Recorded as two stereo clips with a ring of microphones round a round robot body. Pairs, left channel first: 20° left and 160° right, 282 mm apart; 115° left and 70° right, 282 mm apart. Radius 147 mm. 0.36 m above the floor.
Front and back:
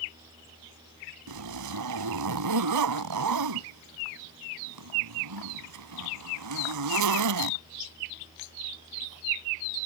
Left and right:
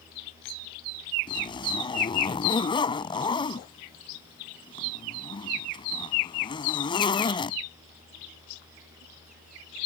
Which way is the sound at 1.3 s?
175° right.